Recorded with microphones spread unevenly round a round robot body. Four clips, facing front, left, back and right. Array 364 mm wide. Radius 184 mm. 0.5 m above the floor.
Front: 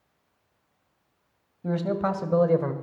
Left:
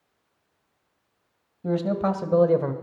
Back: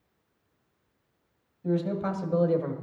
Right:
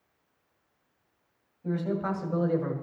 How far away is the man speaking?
About 3 m.